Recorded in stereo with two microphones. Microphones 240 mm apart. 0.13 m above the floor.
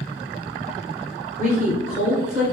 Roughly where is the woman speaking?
Right.